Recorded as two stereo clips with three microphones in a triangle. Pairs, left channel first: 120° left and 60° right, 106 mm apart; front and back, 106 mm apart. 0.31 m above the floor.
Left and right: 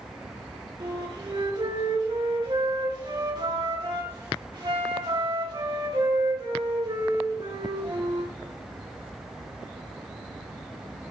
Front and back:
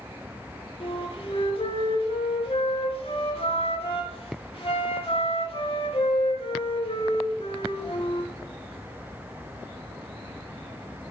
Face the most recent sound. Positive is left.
turn(degrees=-20)